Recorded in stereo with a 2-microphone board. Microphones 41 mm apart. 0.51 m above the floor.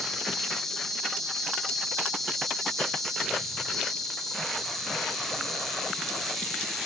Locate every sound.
0.0 s an insect: 5° left (ahead or behind), 4.5 m